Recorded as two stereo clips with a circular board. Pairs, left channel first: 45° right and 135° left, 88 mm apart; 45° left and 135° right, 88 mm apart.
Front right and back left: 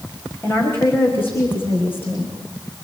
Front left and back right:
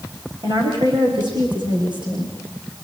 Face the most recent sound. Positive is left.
turn(degrees=-110)